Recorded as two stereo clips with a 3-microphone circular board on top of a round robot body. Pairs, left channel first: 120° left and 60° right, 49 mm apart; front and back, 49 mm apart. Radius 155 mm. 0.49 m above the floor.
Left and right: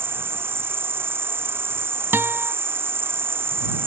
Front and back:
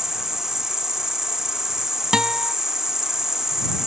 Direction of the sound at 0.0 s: 100° right.